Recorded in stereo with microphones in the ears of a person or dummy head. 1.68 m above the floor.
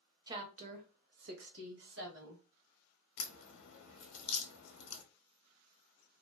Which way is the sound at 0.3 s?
20° right (ahead or behind).